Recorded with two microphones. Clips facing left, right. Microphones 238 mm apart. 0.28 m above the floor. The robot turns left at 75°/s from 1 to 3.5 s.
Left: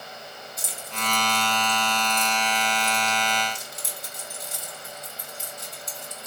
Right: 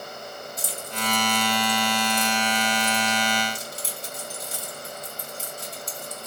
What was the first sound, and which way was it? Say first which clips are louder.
Keys jangling: right 3 dB; 30° left (ahead or behind).